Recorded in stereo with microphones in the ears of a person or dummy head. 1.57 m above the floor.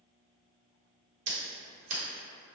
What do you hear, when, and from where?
1.3 s scissors: 40° right (ahead or behind), 1.0 m